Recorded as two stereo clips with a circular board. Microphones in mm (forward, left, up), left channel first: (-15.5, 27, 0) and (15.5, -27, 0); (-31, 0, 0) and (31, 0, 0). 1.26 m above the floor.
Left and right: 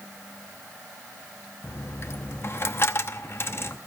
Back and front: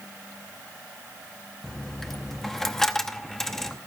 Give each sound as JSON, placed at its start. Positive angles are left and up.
{"t": 1.6, "sound": "a dropped coin", "azimuth_deg": 100, "distance_m": 0.8}